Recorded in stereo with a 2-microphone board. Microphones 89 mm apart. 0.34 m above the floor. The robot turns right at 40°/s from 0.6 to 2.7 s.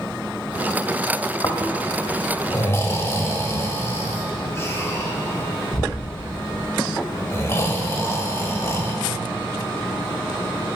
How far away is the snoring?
About 0.8 m.